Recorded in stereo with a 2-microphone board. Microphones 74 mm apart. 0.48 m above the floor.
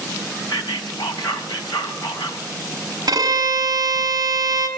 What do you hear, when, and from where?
0.5 s whispering: 75° left (ahead or behind), 3.5 m
3.1 s a violin: 55° right (ahead or behind), 4.5 m